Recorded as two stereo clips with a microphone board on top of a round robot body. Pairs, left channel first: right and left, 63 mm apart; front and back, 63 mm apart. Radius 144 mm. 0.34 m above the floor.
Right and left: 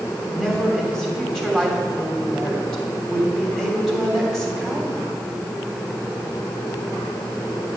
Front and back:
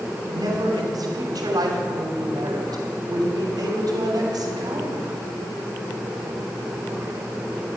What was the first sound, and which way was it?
A woman speaking, 170° right.